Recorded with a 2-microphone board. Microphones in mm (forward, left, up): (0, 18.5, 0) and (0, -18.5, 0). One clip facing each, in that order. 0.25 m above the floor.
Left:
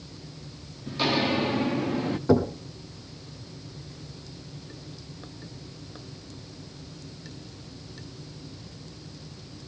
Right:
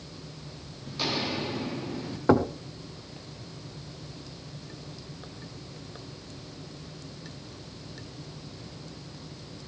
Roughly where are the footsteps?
Centre.